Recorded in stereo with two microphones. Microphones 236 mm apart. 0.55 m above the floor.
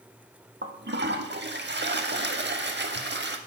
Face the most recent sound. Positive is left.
turn(degrees=-50)  # may be behind; listen again after turning